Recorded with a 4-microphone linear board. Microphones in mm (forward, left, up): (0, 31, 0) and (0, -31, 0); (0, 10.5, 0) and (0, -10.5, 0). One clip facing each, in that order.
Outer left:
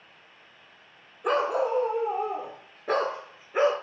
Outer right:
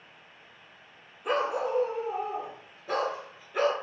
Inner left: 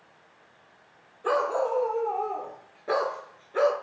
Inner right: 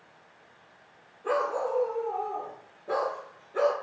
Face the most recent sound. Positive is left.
turn(degrees=20)  # may be behind; listen again after turning